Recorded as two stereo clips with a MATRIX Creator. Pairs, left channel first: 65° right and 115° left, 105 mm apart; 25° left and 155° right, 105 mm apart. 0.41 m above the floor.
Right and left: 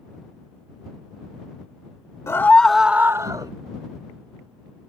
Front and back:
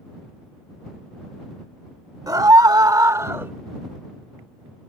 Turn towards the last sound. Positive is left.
turn(degrees=140)